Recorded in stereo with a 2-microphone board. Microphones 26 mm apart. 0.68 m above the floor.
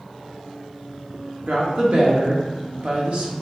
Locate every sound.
1.5 s a woman speaking: 55° right (ahead or behind), 1.1 m